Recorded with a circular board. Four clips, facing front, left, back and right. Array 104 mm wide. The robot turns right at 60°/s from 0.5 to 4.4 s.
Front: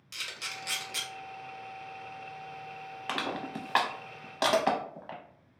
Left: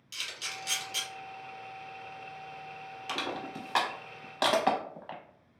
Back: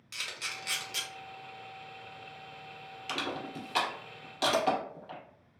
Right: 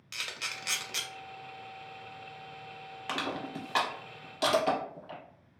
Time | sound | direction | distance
0.1 | a camera shutter | 105° right | 0.7 m
3.1 | crushing | 25° right | 0.6 m